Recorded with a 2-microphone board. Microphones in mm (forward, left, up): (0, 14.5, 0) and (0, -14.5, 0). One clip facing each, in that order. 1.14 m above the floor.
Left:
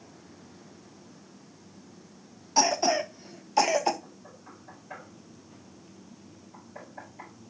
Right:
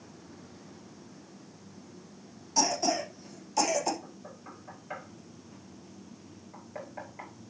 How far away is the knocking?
About 5 m.